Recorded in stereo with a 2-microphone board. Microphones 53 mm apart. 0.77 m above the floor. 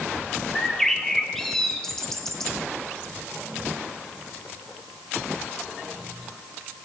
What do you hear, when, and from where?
0.6 s a bird: 10° left (ahead or behind), 0.7 m